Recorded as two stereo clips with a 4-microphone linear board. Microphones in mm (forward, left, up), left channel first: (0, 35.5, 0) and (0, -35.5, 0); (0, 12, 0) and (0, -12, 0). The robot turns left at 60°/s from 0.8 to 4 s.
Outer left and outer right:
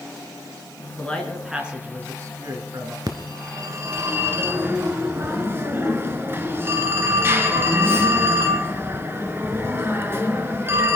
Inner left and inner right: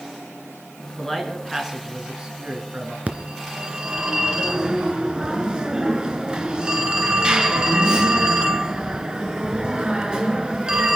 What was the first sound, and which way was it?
A man speaking, 25° left.